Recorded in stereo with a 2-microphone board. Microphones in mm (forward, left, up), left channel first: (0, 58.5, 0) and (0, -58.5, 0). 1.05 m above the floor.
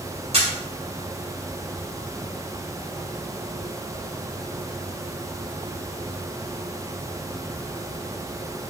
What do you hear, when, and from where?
0.3 s a camera shutter: 60° right (ahead or behind), 3 m